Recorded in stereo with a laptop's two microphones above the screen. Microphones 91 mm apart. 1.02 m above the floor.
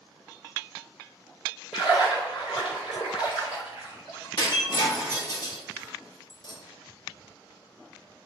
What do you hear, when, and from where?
1.7 s a splash: 80° left, 1.4 m
4.4 s breaking glass: 50° left (ahead or behind), 0.6 m